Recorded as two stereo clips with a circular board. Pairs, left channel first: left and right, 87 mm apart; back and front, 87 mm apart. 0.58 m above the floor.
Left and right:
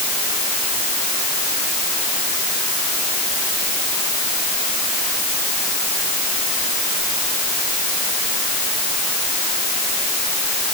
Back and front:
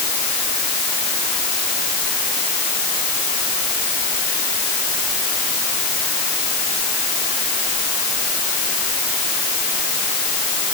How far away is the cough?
I don't hear a cough.